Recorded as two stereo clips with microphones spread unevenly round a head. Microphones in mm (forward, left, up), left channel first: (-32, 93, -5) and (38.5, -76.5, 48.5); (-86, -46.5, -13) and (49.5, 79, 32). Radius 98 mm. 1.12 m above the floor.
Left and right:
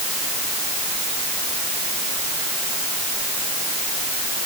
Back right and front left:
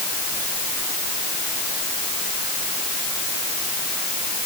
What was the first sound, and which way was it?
Only background noise.